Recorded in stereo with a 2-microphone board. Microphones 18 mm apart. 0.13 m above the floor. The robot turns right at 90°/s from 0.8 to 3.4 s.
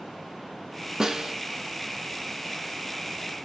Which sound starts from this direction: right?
A snare drum, at 1.0 s.